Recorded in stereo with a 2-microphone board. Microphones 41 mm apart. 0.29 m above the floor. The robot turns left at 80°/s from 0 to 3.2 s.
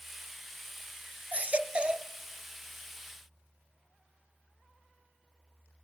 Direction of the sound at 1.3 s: 85° right.